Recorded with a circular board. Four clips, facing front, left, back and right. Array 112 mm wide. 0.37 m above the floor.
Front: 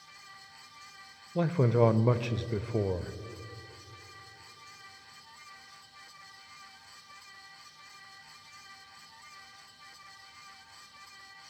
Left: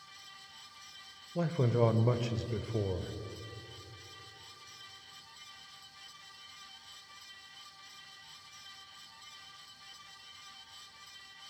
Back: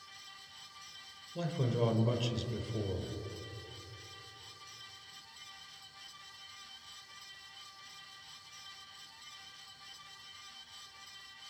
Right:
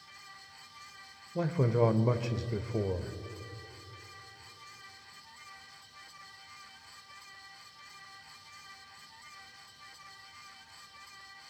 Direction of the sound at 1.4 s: 15° right.